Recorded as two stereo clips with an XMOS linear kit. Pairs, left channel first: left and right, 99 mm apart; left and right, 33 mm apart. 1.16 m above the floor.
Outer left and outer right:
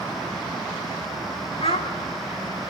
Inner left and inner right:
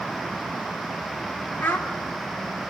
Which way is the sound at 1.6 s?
70° left (ahead or behind).